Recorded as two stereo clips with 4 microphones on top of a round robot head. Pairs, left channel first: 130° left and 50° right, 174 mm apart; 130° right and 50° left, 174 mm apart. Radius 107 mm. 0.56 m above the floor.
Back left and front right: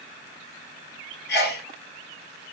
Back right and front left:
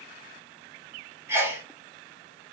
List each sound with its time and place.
1.3 s a sneeze: 125° left, 1.5 m